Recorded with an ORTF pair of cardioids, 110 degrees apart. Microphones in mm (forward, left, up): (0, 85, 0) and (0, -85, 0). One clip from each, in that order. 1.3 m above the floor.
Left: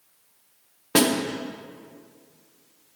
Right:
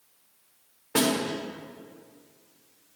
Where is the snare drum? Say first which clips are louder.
Left 4 dB; 45° left, 1.1 m.